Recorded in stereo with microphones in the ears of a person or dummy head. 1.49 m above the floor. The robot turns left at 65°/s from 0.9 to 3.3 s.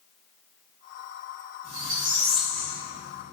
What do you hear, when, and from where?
1.6 s a squeak: 130° right, 1.2 m; by 3.3 s 125° left, 1.2 m